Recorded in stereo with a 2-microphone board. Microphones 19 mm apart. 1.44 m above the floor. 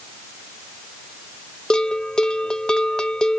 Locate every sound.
1.7 s a bell: 50° left (ahead or behind), 0.5 m